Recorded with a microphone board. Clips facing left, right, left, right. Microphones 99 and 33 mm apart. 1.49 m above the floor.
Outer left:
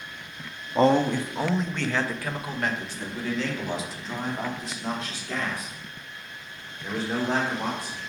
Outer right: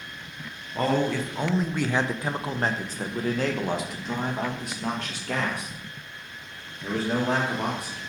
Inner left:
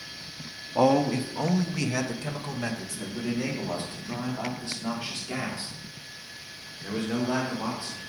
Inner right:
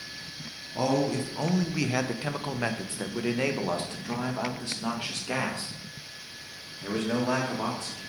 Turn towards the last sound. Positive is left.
turn(degrees=-70)  # may be behind; listen again after turning